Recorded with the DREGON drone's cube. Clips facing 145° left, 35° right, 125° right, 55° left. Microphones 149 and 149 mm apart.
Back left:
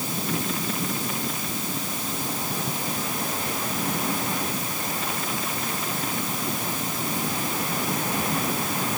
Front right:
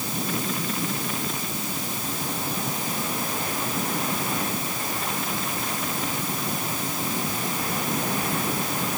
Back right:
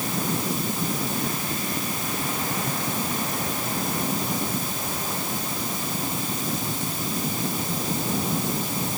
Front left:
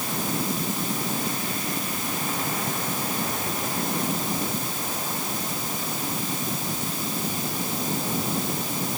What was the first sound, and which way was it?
Only background noise.